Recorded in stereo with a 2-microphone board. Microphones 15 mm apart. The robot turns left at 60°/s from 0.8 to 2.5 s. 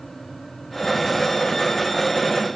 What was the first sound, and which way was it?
Only background noise.